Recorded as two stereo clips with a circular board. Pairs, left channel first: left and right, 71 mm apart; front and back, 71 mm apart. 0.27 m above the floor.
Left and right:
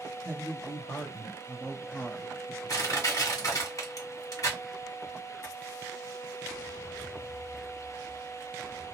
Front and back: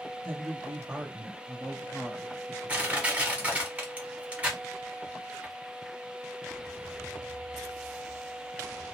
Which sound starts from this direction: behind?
A woman speaking, at 0.2 s.